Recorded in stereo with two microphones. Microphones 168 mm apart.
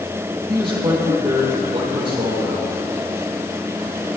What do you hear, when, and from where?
0.5 s a man speaking: 30° right (ahead or behind), 3.5 m